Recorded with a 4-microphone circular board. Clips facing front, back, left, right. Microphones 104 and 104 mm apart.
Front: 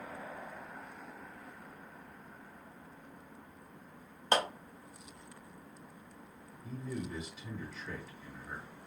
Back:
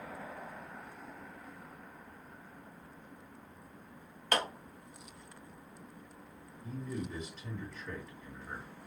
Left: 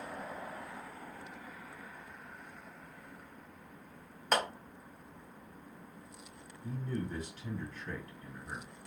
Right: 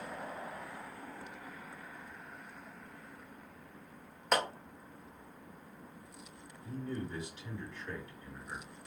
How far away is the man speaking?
About 2 m.